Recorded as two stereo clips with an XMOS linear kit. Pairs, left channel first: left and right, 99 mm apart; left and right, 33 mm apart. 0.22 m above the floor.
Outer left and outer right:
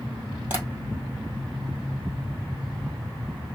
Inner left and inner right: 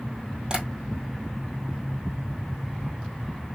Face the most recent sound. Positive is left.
turn(degrees=-25)  # may be behind; listen again after turning